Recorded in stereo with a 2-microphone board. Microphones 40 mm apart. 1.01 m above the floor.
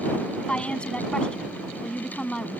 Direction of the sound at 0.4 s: 25° left (ahead or behind).